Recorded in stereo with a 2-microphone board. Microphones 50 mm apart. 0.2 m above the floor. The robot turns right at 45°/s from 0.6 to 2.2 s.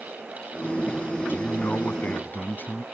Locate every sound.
1.3 s a man speaking: 65° left; by 2.8 s 105° left